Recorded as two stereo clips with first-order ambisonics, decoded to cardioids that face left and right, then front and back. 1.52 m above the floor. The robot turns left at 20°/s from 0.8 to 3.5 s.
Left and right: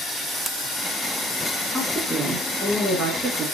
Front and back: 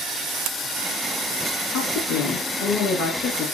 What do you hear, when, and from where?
1.7 s a woman speaking: 5° right, 2 m; by 3.5 s 40° right, 2 m